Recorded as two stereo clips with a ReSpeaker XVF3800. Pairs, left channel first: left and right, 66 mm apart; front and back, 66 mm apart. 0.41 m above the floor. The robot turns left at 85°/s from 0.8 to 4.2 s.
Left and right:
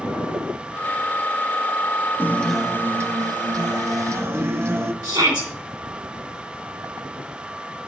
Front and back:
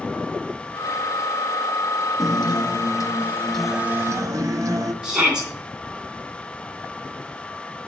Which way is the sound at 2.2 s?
30° left.